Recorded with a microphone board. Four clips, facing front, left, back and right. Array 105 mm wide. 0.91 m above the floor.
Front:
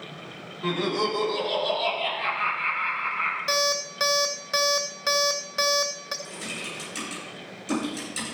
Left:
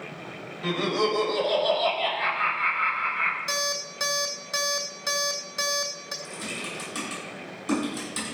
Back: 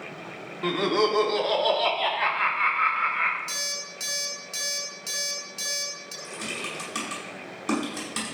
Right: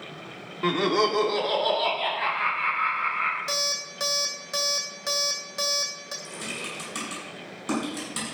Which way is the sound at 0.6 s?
115° right.